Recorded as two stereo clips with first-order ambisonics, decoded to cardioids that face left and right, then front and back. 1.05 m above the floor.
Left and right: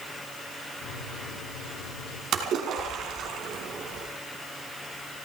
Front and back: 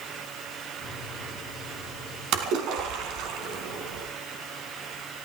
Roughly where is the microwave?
Ahead left.